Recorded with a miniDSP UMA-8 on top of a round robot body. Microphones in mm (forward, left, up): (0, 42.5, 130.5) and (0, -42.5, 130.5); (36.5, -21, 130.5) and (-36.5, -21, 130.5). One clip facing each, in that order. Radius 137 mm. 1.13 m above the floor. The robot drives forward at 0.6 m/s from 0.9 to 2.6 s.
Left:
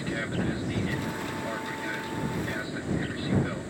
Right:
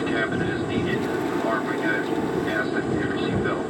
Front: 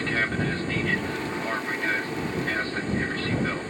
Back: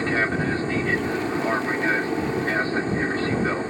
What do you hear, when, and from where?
0.0 s an aircraft: 110° right; by 3.7 s 115° right